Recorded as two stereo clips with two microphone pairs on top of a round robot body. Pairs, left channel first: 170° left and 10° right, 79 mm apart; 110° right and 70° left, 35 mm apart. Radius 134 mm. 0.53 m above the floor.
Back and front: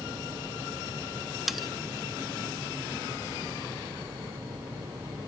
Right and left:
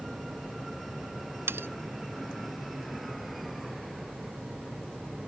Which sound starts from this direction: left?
Cutlery clinking, at 1.5 s.